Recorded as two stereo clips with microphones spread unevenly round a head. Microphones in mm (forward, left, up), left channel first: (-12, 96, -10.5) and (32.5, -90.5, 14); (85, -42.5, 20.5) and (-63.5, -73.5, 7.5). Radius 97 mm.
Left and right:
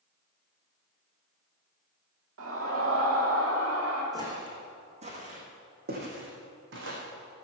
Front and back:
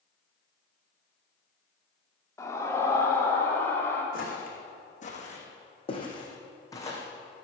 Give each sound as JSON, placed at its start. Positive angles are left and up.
{"t": 2.4, "sound": "a scream", "azimuth_deg": -60, "distance_m": 2.5}
{"t": 4.1, "sound": "footsteps", "azimuth_deg": -5, "distance_m": 4.5}